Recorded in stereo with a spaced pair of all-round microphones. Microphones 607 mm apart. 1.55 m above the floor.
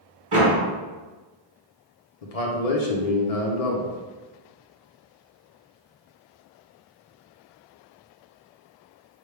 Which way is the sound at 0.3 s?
55° right (ahead or behind).